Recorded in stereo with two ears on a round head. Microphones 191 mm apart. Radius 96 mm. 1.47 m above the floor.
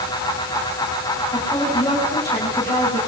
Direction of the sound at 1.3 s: 15° left (ahead or behind).